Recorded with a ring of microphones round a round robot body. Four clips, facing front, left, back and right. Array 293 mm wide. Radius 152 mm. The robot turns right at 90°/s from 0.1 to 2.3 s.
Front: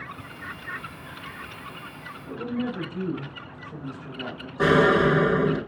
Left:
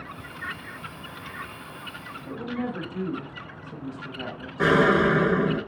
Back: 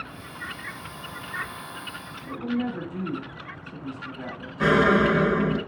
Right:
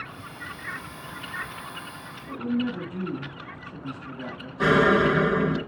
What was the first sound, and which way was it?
A woman speaking, 75° left.